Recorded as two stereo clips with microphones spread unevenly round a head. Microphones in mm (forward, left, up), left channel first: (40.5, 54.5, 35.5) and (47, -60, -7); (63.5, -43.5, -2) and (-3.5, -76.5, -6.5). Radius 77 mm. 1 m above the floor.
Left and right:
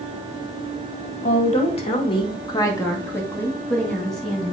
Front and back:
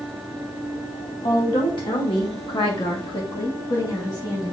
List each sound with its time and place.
1.2 s a woman speaking: 65° left, 2 m; by 4.5 s 5° right, 3 m